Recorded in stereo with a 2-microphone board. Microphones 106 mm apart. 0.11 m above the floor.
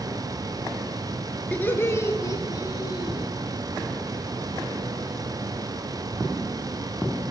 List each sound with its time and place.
1.5 s laughter: 15° left (ahead or behind), 1.3 m; by 3.3 s 40° left (ahead or behind), 3 m